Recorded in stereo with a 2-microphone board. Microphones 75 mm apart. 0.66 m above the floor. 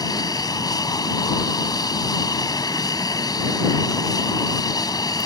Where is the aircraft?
55° left (ahead or behind).